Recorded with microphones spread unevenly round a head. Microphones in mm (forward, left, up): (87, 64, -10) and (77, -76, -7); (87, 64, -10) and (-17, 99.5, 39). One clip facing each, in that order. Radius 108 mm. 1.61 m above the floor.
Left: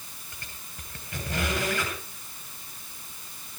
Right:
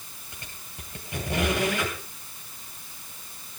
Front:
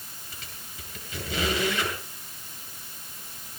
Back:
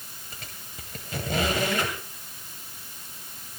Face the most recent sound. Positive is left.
turn(degrees=-170)